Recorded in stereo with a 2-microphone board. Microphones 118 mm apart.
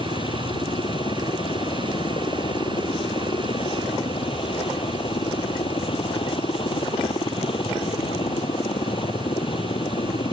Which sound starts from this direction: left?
A helicopter, at 0.0 s.